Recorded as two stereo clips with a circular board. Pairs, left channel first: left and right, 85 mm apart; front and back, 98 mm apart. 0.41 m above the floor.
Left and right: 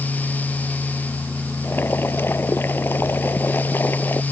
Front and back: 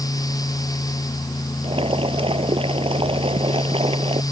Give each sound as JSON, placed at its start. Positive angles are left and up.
{"t": 1.6, "sound": "boiling", "azimuth_deg": 155}